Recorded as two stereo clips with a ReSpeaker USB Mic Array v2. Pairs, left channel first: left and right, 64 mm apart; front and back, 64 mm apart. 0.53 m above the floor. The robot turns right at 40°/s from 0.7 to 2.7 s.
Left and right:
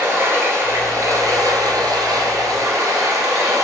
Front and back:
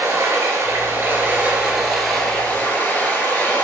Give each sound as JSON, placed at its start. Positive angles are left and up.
{"t": 0.0, "sound": "running water", "azimuth_deg": -140, "distance_m": 1.5}